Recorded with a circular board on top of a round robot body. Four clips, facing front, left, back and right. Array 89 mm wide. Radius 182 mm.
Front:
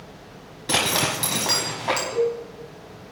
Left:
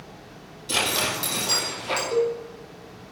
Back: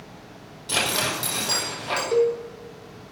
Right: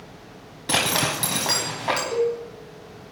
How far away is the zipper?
About 1.1 m.